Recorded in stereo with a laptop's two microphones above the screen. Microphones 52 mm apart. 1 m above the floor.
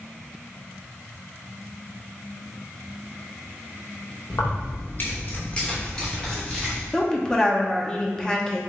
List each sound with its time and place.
4.3 s keys jangling: 70° left (ahead or behind), 0.8 m; by 6.8 s 5° left (ahead or behind), 1.8 m
6.9 s a woman speaking: 15° left (ahead or behind), 0.6 m